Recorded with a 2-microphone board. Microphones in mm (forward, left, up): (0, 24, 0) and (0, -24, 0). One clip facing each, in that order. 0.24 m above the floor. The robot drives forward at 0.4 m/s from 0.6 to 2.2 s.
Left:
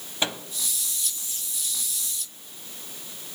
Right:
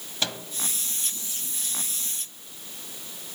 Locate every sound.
0.2 s a microwave: 20° left (ahead or behind), 1.2 m